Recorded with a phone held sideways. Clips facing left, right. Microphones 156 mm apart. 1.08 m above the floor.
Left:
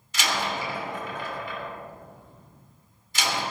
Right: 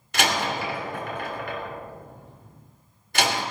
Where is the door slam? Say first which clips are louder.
Right 4 dB; 60° right (ahead or behind), 3 m.